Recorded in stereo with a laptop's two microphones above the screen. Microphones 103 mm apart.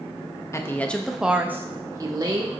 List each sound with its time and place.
0.5 s a woman speaking: 25° left (ahead or behind), 0.9 m; by 2.5 s 40° right (ahead or behind), 1.5 m